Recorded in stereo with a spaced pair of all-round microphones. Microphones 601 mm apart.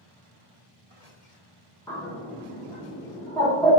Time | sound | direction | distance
1.9 | a bird | 5° left (ahead or behind) | 0.6 m